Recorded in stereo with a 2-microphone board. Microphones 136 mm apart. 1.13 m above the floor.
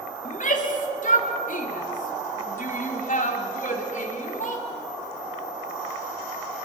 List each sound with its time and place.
0.2 s a shout: 70° left (ahead or behind), 3 m